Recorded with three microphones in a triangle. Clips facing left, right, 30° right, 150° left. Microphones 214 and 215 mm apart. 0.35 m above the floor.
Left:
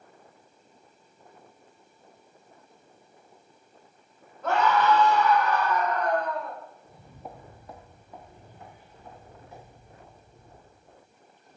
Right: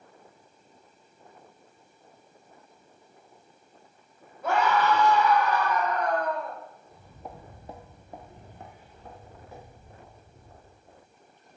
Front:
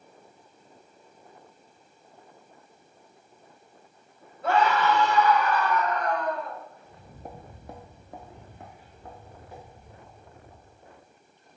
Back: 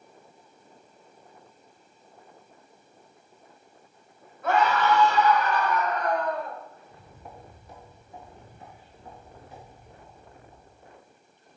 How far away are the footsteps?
About 0.6 m.